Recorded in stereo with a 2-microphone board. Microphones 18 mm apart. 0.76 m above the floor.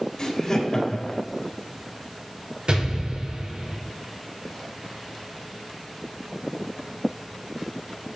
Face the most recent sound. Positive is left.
turn(degrees=-65)  # may be behind; listen again after turning